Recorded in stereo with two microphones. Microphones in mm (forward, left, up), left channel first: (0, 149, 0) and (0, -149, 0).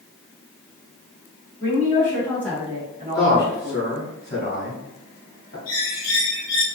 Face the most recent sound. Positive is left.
turn(degrees=60)  # may be behind; listen again after turning